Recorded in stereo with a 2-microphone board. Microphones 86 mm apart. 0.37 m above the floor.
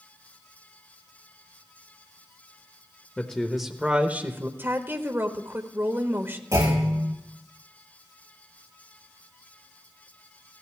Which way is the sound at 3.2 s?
10° left (ahead or behind).